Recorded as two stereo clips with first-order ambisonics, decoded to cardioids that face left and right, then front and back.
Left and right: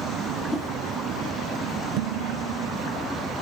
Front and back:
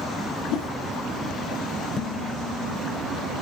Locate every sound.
0.5 s a whoosh: 15° left, 5 m
2.0 s dishes clattering: 70° right, 1.6 m